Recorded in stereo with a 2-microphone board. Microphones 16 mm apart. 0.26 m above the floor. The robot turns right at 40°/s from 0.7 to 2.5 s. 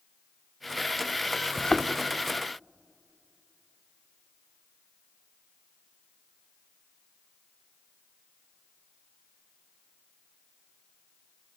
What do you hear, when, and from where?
1.6 s a thud: 45° left (ahead or behind), 1.2 m; by 1.9 s 60° left (ahead or behind), 1.2 m